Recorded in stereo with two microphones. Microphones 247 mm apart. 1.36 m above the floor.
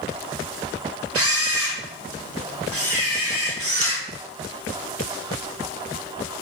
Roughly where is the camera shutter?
Right.